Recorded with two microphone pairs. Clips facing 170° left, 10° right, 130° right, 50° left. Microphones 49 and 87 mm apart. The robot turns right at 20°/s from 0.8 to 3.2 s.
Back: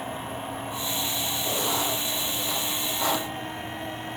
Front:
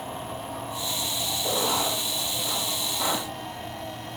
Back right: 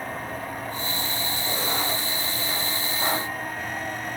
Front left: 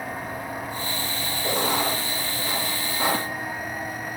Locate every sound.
1.4 s writing: 30° left, 4.5 m; by 3.3 s 65° left, 4.5 m